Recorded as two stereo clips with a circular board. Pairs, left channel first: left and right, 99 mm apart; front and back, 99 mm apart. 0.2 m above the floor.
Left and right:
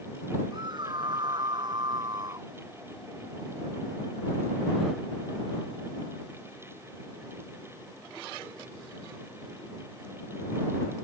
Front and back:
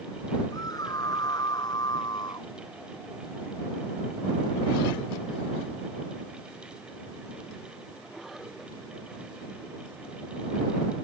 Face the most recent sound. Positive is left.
turn(degrees=-45)